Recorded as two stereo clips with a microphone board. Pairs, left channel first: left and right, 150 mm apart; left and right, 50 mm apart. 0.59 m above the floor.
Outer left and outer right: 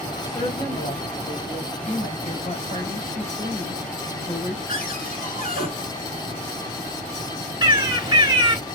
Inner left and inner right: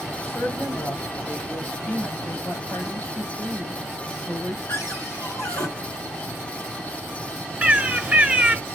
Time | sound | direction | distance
0.2 | a woman speaking | 50° left (ahead or behind) | 2 m
1.8 | a woman speaking | 60° left (ahead or behind) | 3 m
4.7 | a cupboard door | 75° left (ahead or behind) | 3 m
7.6 | a bird | 25° right (ahead or behind) | 0.9 m